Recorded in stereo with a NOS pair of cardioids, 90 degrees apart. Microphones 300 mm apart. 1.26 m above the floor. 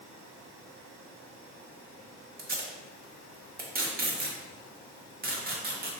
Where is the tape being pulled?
30° right, 1.1 m.